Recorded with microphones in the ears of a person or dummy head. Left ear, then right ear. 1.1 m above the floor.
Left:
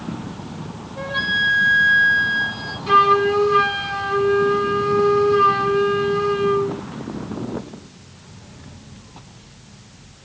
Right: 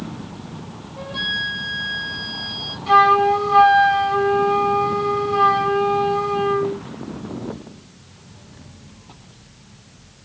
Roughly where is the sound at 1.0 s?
Centre.